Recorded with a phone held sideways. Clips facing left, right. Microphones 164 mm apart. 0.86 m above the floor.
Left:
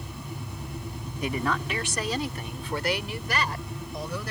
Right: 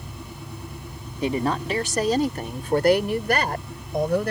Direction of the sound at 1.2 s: 30° right (ahead or behind).